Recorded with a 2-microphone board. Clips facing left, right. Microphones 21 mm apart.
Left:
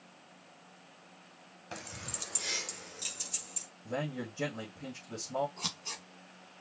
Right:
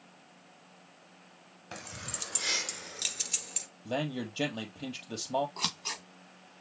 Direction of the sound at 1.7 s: 5° right (ahead or behind).